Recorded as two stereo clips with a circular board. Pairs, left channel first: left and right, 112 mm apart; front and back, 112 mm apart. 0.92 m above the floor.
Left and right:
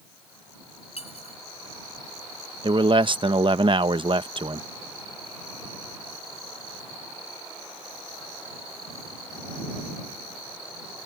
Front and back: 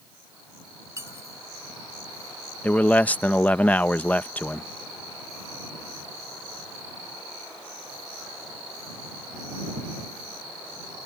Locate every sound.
1.0 s cutlery clinking: 115° left
2.6 s a man speaking: 70° right